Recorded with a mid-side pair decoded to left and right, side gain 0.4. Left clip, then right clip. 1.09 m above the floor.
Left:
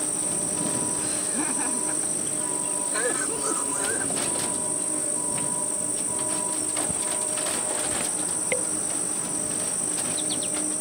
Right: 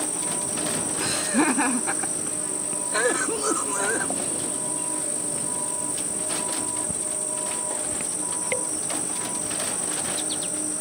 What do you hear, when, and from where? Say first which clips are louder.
0.0 s an insect: right 1 dB; straight ahead
1.0 s laughter: right 6 dB; 70° right
2.9 s a cough: right 6 dB; 45° right